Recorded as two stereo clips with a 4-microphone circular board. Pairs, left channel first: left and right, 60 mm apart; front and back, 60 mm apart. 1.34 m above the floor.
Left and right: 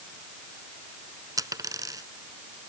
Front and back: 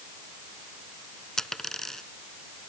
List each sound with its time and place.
1.4 s a dropped coin: 85° right